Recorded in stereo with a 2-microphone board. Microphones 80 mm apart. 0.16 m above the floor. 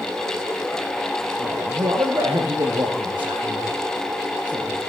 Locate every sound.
1.4 s a man speaking: 60° right (ahead or behind), 3.5 m